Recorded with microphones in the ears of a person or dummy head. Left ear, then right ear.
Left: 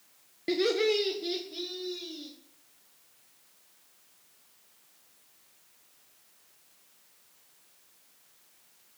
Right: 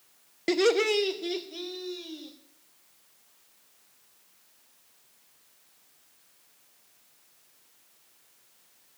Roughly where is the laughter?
Right.